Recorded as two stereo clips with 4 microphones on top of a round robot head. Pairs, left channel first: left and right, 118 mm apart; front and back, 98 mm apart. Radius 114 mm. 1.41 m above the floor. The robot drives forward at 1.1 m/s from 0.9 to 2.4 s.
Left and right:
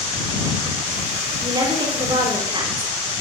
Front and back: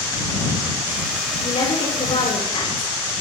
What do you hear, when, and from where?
1.4 s a woman speaking: 35° right, 5.5 m; by 2.9 s 40° right, 5 m